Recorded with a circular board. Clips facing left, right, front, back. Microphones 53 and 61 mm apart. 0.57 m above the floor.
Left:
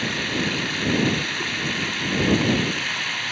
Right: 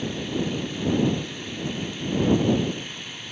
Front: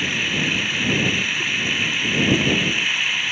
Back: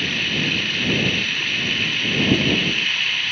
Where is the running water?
80° left.